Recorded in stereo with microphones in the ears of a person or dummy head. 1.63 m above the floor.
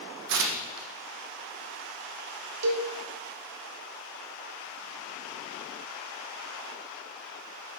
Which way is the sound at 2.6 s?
85° right.